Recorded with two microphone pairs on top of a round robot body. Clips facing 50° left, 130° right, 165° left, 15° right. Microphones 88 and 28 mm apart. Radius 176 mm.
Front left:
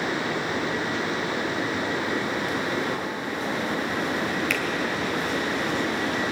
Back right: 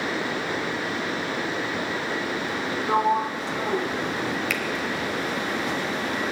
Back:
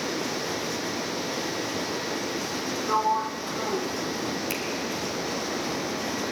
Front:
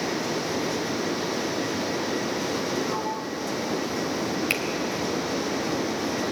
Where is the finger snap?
45° right, 3 m.